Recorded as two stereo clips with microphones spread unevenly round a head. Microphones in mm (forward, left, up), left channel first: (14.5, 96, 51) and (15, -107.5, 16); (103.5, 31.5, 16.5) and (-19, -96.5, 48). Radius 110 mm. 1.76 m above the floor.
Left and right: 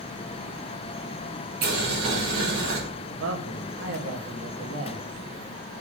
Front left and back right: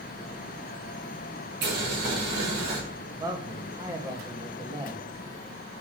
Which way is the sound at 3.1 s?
65° right.